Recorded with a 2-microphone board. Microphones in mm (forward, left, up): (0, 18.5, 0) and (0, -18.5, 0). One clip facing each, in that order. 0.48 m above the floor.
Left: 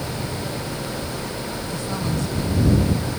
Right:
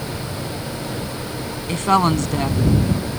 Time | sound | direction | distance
1.7 | a woman speaking | 55° right (ahead or behind) | ?